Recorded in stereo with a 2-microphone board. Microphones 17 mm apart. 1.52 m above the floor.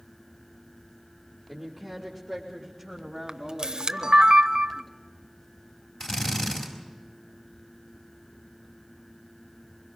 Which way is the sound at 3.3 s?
55° right (ahead or behind).